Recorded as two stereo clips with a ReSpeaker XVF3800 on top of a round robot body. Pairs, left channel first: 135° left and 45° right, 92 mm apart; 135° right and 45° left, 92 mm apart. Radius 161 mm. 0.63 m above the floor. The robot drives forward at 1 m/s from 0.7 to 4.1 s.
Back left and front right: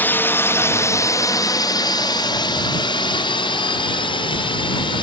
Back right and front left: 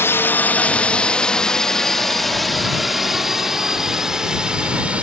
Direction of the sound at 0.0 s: 175° right.